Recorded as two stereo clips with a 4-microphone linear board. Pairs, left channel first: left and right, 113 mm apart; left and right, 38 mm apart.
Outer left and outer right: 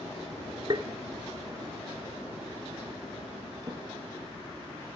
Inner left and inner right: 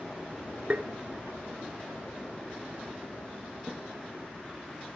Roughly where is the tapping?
Right.